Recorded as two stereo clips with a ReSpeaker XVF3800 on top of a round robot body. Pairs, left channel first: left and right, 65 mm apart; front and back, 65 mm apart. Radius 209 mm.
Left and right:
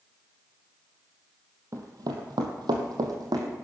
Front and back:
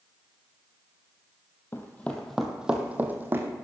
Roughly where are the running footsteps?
Ahead right.